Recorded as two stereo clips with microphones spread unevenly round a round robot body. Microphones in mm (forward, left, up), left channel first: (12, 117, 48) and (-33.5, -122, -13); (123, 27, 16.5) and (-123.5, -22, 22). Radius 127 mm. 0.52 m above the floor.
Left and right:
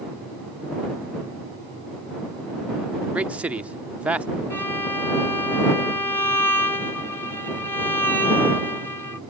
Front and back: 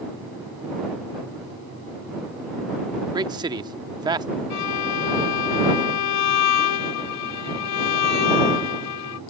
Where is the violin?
5° right.